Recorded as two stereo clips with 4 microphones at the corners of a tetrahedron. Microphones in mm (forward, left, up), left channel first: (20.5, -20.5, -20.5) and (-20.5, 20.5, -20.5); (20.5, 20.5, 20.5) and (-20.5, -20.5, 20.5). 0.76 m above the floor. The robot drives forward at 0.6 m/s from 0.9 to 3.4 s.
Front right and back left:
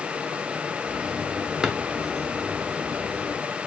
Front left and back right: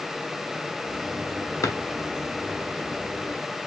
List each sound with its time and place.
1.6 s a drawer: 60° left, 0.7 m; by 1.8 s 65° left, 0.6 m